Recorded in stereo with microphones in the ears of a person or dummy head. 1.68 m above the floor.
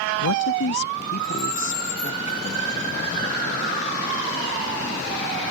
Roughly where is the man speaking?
Left.